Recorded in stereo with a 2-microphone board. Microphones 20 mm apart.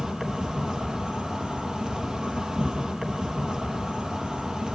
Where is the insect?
35° right (ahead or behind), 3.5 m.